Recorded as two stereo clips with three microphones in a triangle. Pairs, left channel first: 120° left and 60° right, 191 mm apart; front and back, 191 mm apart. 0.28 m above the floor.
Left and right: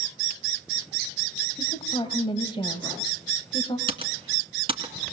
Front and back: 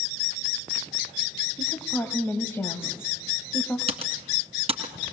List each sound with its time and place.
1.6 s a woman speaking: 70° left, 1.5 m
3.9 s typing on a keyboard: 120° right, 2 m